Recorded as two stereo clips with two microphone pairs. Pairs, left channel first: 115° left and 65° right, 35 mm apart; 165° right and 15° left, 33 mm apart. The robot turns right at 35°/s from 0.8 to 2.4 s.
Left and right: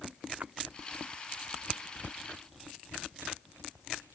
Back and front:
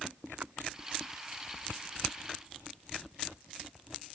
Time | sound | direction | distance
0.4 | a splash | 25° right | ?